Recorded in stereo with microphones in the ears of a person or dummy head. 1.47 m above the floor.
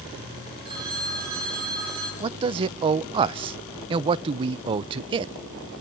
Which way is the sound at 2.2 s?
30° right (ahead or behind).